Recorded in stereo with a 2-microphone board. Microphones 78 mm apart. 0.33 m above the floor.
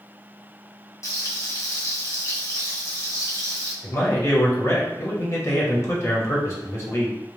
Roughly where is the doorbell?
I don't hear a doorbell.